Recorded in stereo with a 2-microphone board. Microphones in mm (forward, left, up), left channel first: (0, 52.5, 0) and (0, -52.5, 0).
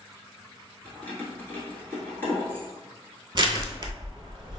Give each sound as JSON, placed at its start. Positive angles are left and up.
{"t": 0.8, "sound": "keys jangling", "side_deg": 20, "distance_m": 1.1}
{"t": 3.4, "sound": "crushing", "side_deg": -45, "distance_m": 0.5}